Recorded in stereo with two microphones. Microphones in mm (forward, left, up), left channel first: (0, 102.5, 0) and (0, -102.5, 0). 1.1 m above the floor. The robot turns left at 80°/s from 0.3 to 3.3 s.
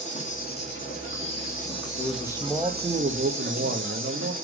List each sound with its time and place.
0.0 s an insect: 145° left, 2 m; by 4.4 s 95° right, 2 m
2.0 s a man speaking: 45° left, 1.1 m; by 4.3 s 65° right, 1.1 m